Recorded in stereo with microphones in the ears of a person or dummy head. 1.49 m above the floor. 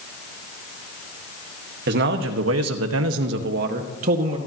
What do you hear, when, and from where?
1.9 s a man speaking: 55° right (ahead or behind), 1.6 m; by 4.4 s 40° right (ahead or behind), 1.9 m